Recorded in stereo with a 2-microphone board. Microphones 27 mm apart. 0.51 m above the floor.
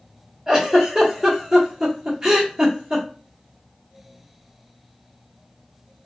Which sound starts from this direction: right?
A giggle, at 0.5 s.